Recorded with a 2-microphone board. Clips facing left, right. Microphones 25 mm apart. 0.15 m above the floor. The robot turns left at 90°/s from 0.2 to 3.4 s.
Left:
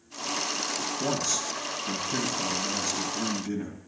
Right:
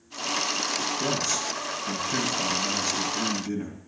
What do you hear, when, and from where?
1.0 s a man speaking: 30° left, 2 m; by 3.8 s 175° left, 2 m